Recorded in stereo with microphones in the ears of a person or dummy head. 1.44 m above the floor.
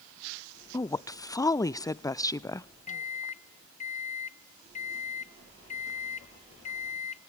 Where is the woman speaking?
5° left (ahead or behind), 0.6 m.